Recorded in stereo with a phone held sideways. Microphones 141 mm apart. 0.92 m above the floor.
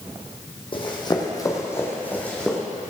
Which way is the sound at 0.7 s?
35° left (ahead or behind).